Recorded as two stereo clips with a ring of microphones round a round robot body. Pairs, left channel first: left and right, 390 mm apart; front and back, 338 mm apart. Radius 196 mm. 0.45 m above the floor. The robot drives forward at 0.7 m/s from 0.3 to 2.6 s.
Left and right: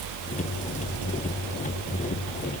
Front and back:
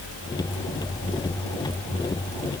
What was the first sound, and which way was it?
Only background noise.